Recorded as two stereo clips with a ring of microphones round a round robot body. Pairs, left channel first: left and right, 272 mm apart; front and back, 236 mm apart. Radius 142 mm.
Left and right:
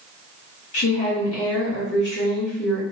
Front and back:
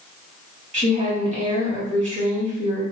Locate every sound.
0.7 s a woman speaking: 125° left, 1.9 m